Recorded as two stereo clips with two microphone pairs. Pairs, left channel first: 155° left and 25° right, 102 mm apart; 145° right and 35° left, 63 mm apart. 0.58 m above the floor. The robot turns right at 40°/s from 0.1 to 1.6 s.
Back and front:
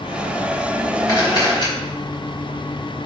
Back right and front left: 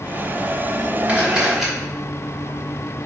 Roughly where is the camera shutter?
Left.